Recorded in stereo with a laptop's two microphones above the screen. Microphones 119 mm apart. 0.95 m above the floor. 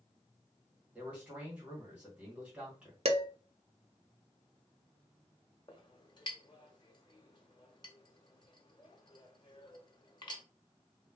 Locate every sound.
0.9 s a man speaking: 10° right (ahead or behind), 1.2 m
3.0 s dishes clattering: 60° right (ahead or behind), 0.6 m
5.7 s a clink: 40° left (ahead or behind), 0.8 m